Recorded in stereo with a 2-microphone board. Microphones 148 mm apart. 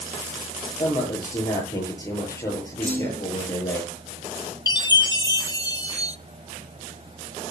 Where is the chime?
25° left (ahead or behind), 0.8 m.